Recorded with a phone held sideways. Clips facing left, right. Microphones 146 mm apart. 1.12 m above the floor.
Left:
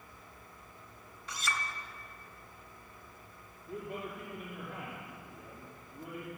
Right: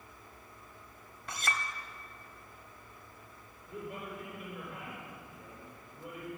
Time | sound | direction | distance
1.3 | a clink | 50° right (ahead or behind) | 0.9 m
3.7 | a man speaking | 60° left (ahead or behind) | 2.5 m